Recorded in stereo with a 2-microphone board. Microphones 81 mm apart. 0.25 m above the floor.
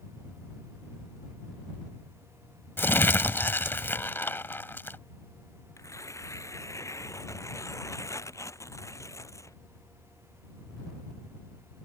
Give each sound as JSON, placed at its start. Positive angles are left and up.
{"t": 2.8, "sound": "crumpling", "side_deg": 25}
{"t": 5.8, "sound": "tearing paper", "side_deg": 35}